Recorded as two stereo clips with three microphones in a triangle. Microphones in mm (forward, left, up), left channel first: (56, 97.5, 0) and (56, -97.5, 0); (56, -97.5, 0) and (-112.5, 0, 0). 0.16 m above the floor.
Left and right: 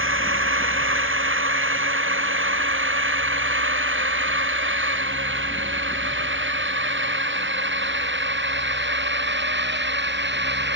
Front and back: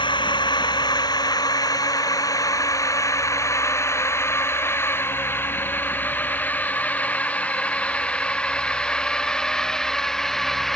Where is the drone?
100° right; by 10.8 s 120° right.